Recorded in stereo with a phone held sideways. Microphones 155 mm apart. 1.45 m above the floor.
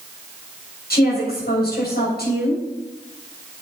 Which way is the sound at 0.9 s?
85° left.